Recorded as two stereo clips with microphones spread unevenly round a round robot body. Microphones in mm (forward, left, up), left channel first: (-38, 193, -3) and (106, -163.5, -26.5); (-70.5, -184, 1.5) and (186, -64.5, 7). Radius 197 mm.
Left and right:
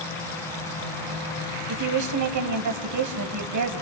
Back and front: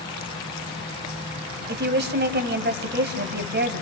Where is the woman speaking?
25° right, 3 m.